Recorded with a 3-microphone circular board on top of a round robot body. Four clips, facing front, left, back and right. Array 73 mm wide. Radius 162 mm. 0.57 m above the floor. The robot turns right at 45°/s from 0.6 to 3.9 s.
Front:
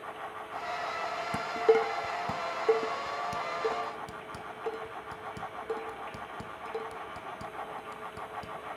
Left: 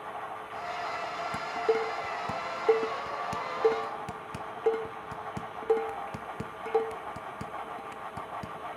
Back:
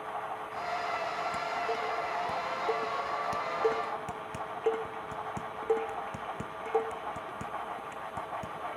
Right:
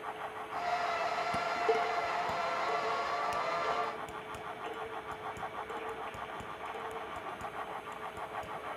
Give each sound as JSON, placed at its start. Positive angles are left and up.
{"t": 1.3, "sound": "dishes clattering", "azimuth_deg": 0, "distance_m": 1.2}